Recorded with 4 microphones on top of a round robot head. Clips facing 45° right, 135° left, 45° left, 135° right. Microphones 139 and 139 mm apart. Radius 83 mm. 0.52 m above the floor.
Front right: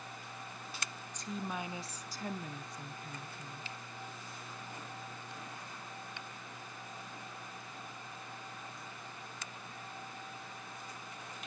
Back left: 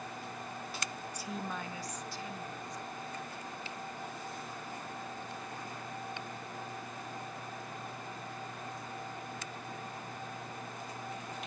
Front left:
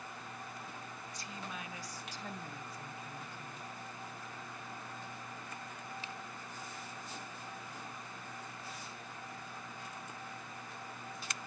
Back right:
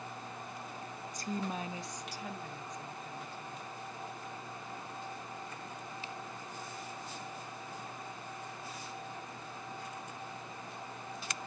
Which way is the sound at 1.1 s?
150° right.